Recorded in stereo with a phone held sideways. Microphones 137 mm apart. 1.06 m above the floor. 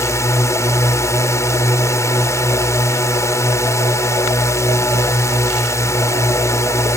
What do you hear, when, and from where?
0.0 s a drone: 20° left (ahead or behind)